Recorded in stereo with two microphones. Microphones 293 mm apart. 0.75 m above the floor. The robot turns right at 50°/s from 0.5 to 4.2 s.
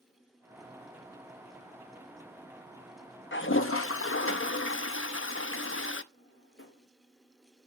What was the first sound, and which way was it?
A toilet flushing, 60° left.